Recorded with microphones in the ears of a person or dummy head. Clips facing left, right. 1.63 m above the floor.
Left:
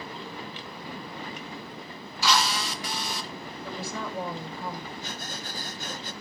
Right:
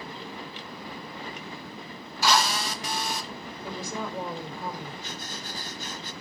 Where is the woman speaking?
20° right (ahead or behind), 5 m.